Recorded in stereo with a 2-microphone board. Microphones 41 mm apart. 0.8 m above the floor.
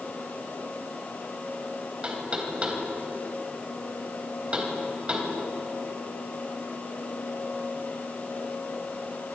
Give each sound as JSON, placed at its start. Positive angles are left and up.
{"t": 2.0, "sound": "knocking", "side_deg": -30, "distance_m": 3.5}